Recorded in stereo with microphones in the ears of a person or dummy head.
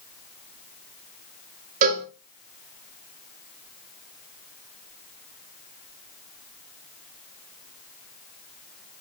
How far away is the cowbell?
About 2.5 m.